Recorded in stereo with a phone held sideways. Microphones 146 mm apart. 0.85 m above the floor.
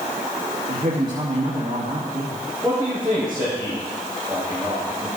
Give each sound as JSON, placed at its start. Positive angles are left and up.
{"t": 0.7, "sound": "a man speaking", "side_deg": -60, "distance_m": 1.8}
{"t": 2.6, "sound": "a man speaking", "side_deg": -30, "distance_m": 4.5}